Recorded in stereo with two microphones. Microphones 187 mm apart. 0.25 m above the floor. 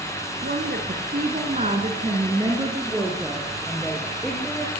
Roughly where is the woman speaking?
Right.